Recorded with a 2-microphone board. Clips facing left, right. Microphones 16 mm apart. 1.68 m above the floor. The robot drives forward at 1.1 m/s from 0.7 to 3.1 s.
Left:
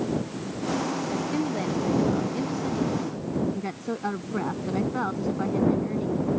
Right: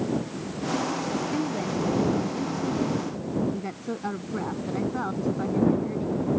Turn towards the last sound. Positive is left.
turn(degrees=20)  # may be behind; listen again after turning